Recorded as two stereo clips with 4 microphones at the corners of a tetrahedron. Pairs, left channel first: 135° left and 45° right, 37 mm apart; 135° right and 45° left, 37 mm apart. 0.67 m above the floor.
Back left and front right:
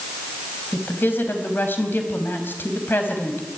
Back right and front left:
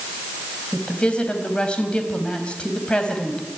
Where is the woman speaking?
160° left, 4 m.